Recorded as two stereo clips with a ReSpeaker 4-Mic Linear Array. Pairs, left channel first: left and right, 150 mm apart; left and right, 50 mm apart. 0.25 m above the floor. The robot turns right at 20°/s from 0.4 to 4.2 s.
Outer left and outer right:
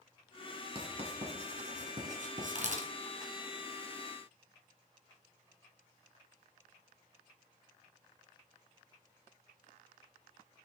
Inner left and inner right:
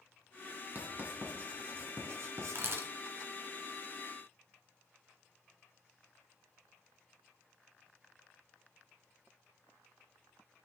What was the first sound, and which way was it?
Writing, 35° right (ahead or behind).